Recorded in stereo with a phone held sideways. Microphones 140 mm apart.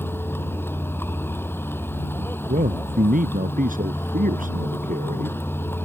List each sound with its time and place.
0.0 s a vehicle: 15° left (ahead or behind)
2.5 s a man speaking: 75° right (ahead or behind)